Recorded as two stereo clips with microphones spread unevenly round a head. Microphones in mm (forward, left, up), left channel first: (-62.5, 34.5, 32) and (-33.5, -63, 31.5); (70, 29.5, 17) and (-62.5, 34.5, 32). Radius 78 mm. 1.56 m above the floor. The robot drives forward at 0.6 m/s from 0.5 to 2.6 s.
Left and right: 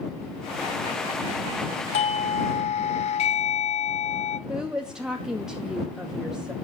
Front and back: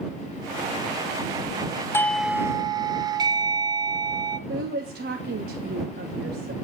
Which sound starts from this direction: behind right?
A woman speaking, at 4.5 s.